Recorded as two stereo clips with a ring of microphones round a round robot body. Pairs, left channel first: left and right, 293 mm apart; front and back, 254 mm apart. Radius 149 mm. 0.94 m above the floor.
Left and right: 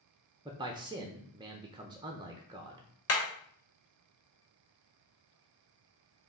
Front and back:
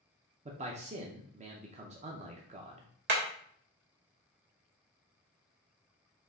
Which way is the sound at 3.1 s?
135° left.